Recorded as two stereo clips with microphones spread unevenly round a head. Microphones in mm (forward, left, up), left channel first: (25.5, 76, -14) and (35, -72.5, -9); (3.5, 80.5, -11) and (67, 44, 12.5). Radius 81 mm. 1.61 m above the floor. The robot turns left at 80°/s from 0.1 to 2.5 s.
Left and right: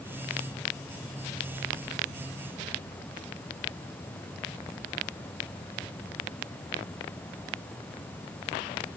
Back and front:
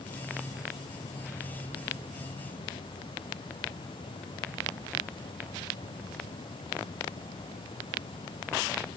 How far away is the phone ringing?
I don't hear a phone ringing.